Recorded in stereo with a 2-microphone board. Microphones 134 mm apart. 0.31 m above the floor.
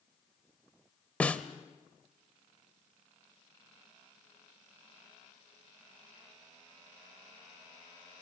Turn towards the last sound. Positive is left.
turn(degrees=10)  # may be behind; listen again after turning